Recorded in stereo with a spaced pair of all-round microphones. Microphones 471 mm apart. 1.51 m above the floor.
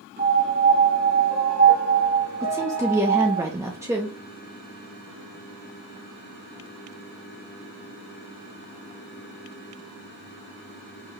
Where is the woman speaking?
5° right (ahead or behind), 0.6 m.